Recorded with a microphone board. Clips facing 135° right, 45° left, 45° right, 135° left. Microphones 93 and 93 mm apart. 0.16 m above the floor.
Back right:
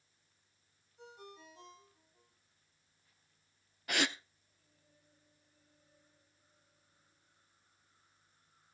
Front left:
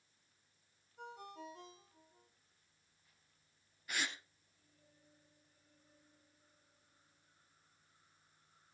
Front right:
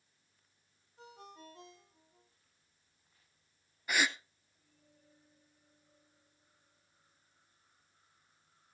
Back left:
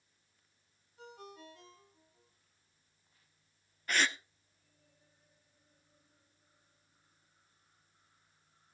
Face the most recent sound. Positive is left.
turn(degrees=-125)